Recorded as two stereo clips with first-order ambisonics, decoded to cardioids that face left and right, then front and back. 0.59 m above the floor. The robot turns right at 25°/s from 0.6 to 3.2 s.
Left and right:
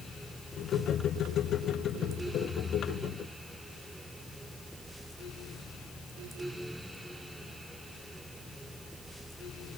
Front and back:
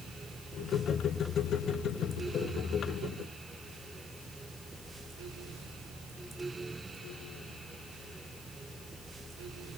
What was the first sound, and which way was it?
Only background noise.